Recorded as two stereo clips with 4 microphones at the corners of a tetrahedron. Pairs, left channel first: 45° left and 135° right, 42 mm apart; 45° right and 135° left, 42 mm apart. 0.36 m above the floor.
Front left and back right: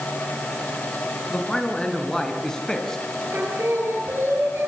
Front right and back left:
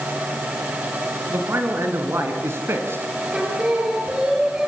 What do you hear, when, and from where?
1.3 s a man speaking: 120° left, 5.5 m
3.3 s singing: 160° right, 8 m